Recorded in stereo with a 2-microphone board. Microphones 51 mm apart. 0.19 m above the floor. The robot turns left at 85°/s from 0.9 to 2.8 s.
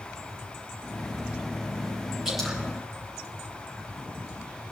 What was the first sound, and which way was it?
Dripping, 10° right (ahead or behind).